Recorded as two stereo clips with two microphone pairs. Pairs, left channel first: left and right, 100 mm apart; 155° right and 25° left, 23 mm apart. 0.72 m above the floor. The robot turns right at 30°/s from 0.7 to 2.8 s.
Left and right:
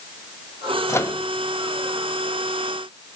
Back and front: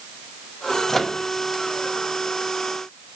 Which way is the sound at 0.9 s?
135° left.